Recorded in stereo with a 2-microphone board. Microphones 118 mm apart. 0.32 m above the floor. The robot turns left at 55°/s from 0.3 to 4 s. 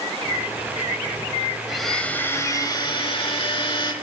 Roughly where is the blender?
Behind.